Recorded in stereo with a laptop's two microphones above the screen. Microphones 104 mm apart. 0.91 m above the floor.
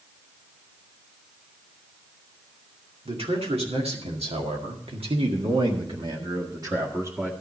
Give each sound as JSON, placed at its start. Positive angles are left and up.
{"t": 3.0, "sound": "a man speaking", "side_deg": -70, "distance_m": 2.5}